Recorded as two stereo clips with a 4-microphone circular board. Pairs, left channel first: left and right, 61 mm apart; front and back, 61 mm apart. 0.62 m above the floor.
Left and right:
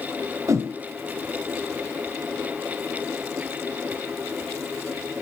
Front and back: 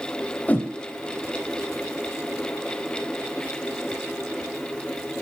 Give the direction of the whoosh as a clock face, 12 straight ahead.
2 o'clock.